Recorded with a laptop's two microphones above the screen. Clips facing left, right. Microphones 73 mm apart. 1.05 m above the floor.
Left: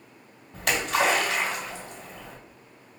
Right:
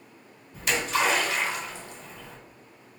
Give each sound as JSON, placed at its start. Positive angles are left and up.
{"t": 0.5, "sound": "a splash", "side_deg": 80, "distance_m": 2.5}